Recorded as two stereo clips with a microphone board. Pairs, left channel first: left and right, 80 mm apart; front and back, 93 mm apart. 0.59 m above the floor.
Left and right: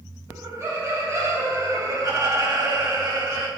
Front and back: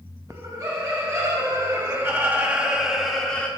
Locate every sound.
0.3 s laughter: 140° right, 3.5 m; by 3.5 s 70° right, 1.4 m